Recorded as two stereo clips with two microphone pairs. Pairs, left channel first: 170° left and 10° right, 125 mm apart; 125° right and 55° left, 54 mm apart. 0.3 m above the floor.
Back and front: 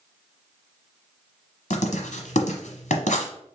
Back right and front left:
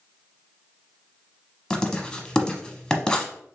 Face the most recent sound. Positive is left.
turn(degrees=155)